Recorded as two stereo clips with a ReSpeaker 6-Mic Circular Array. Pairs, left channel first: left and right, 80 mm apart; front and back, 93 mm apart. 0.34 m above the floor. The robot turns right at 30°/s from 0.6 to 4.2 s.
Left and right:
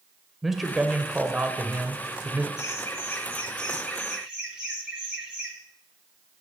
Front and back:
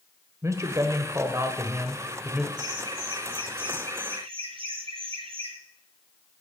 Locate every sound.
0.4 s a man speaking: 175° right, 1.3 m; by 2.5 s 120° right, 1.3 m
2.6 s laughter: 140° left, 4.5 m; by 5.5 s 170° right, 4.5 m